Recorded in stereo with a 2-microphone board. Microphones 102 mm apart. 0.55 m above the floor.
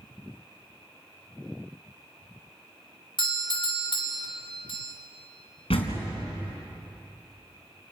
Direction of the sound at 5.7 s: 70° left (ahead or behind).